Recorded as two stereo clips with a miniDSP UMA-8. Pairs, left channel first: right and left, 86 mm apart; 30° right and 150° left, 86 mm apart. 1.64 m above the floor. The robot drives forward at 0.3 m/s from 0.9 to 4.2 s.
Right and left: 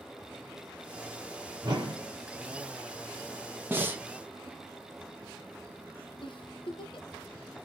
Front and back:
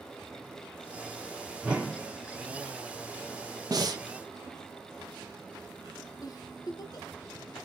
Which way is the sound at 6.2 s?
75° right.